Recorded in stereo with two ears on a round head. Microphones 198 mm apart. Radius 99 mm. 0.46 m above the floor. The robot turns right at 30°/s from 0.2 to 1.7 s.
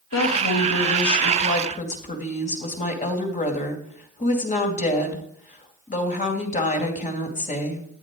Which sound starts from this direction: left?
A woman speaking, at 0.1 s.